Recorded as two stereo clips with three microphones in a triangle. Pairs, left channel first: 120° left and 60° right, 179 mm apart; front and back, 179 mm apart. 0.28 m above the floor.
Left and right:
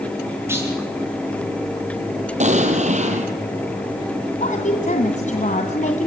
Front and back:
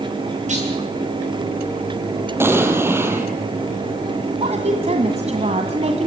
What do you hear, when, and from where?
0.5 s a clunk: 135° right, 9.5 m
2.4 s an explosion: 105° right, 3 m
4.4 s a woman speaking: 145° left, 2 m